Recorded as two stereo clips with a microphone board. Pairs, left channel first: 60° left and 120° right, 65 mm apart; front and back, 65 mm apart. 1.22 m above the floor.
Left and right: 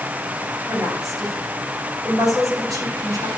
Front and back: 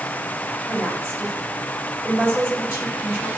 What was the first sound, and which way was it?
A woman speaking, 120° right.